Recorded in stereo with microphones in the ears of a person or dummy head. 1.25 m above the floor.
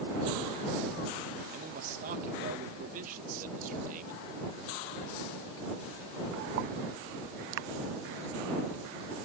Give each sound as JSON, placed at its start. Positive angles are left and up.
{"t": 1.5, "sound": "a man speaking", "side_deg": -40}